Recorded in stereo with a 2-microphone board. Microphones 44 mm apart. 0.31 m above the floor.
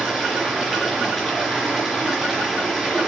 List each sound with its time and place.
0.0 s running water: centre (ahead or behind), 3.5 m